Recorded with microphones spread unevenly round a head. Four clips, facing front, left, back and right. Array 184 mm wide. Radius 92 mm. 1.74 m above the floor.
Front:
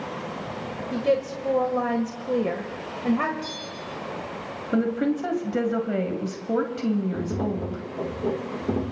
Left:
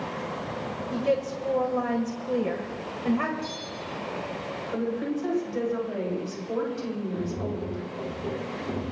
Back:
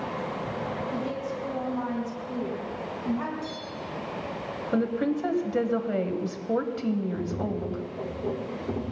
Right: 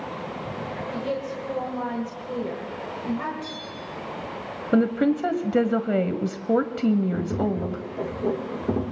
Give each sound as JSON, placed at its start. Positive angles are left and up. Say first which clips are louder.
{"t": 0.9, "sound": "a woman speaking", "louder": "left 5 dB, front 7 dB", "azimuth_deg": 20, "distance_m": 1.5}
{"t": 3.4, "sound": "a bell", "louder": "even, even", "azimuth_deg": -55, "distance_m": 3.0}
{"t": 4.7, "sound": "a woman speaking", "louder": "right 9 dB, front 3 dB", "azimuth_deg": -65, "distance_m": 1.1}
{"t": 7.1, "sound": "tapping", "louder": "right 5 dB, front 3 dB", "azimuth_deg": -50, "distance_m": 1.2}